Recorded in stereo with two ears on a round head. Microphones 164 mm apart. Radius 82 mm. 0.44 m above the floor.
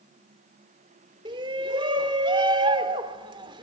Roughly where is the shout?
Right.